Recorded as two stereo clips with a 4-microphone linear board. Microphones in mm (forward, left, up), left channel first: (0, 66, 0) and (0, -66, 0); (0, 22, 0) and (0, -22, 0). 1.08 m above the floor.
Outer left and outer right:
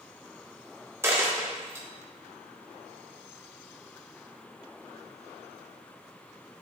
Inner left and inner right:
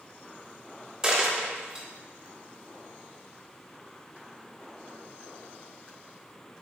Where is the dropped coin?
20° right (ahead or behind), 0.7 m.